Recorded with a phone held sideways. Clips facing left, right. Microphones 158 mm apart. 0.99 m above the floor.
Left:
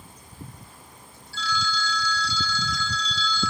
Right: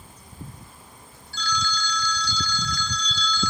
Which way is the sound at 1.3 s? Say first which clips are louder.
Even; centre (ahead or behind).